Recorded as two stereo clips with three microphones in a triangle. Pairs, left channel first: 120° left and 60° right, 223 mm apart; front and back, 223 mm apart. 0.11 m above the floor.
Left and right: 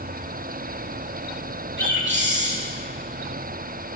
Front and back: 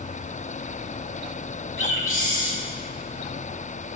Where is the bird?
25° right, 5.5 m.